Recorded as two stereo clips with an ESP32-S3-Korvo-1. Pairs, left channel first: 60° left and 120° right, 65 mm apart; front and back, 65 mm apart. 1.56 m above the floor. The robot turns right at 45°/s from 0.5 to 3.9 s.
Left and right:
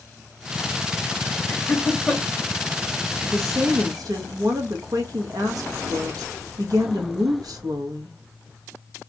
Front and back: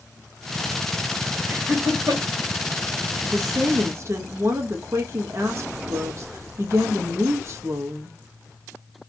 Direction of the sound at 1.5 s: 115° left.